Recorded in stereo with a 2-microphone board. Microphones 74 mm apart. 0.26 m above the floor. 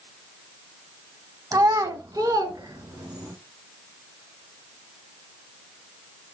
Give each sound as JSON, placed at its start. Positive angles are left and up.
{"t": 1.5, "sound": "a child speaking", "side_deg": -50, "distance_m": 0.7}